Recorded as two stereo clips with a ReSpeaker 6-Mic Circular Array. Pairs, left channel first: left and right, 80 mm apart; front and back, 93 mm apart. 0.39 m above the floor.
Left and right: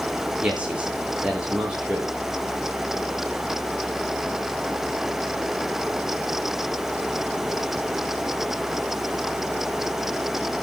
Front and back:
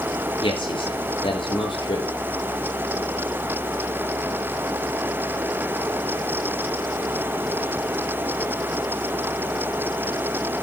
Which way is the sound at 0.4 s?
15° right.